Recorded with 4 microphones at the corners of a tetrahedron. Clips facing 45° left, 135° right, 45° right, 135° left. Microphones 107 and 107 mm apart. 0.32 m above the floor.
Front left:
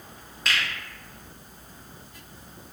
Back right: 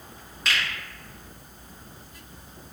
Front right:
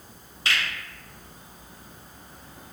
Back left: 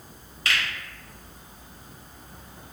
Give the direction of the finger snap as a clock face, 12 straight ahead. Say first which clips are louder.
Even, even; 1 o'clock.